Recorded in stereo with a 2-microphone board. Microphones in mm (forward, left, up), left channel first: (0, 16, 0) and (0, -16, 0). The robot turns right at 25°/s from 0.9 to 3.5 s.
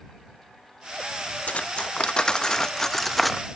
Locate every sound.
1.5 s cutlery clinking: 50° left (ahead or behind); by 3.5 s centre (ahead or behind)